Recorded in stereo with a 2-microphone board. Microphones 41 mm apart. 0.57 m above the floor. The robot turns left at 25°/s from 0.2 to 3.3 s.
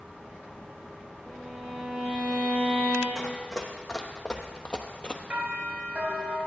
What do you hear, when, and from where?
1.2 s a violin: 5° right, 4.5 m; by 3.0 s 50° right, 4.5 m
3.1 s running footsteps: 15° left (ahead or behind), 1.4 m; by 5.2 s 25° left (ahead or behind), 0.6 m
5.3 s a doorbell: 55° right (ahead or behind), 3.5 m